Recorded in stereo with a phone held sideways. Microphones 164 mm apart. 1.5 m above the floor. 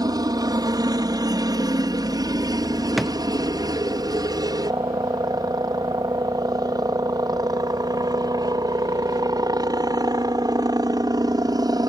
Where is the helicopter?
25° right (ahead or behind).